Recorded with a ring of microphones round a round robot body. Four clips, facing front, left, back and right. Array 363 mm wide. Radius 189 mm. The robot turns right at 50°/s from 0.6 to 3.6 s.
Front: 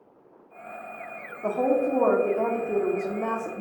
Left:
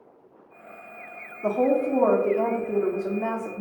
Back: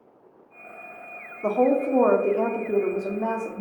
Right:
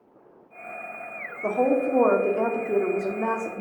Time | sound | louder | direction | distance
1.4 | a woman speaking | even, back 2 dB | 175° right | 0.8 m